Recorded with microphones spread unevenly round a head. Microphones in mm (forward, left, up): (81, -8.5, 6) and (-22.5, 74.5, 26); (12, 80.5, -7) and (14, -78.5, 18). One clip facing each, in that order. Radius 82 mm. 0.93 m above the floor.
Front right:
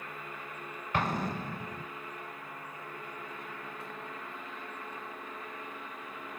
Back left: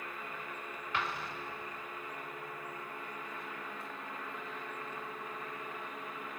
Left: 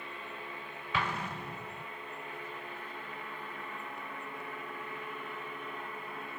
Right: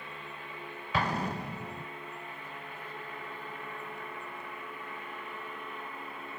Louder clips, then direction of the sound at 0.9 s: Front right 7 dB, right 4 dB; 40° right.